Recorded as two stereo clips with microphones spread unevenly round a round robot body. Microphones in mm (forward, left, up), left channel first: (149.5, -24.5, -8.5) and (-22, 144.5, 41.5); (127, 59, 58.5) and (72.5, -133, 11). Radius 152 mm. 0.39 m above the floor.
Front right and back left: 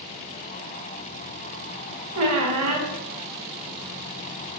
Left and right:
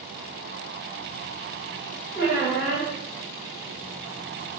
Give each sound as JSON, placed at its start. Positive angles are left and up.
{"t": 2.1, "sound": "a squeak", "azimuth_deg": 130, "distance_m": 0.5}